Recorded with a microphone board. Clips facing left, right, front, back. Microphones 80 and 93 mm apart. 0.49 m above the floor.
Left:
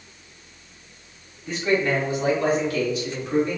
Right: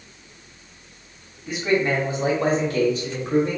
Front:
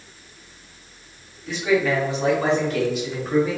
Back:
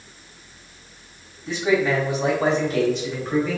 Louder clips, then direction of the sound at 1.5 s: Right 1 dB, even; 160° right.